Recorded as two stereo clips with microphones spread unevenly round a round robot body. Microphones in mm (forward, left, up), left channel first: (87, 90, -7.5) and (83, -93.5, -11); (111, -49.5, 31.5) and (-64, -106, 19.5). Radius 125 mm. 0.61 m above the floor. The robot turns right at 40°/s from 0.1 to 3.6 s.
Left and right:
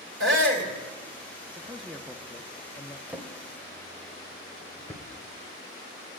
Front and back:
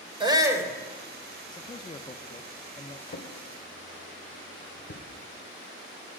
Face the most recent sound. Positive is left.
turn(degrees=5)